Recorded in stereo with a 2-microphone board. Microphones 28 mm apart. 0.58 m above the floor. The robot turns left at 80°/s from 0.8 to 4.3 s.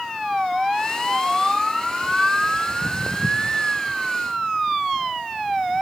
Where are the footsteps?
25° right (ahead or behind), 0.6 m; by 3.6 s 15° left (ahead or behind), 0.6 m.